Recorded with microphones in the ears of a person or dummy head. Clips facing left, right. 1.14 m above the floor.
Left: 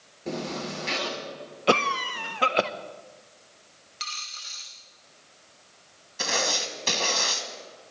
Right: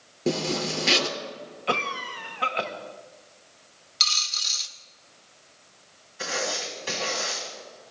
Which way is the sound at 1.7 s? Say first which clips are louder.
Left 6 dB; 55° left (ahead or behind).